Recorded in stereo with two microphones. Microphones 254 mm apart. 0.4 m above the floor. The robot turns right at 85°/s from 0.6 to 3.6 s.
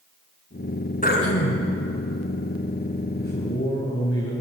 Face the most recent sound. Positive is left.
turn(degrees=75)